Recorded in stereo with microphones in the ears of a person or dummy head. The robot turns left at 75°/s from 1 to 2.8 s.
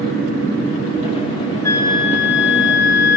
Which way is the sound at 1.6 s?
165° left.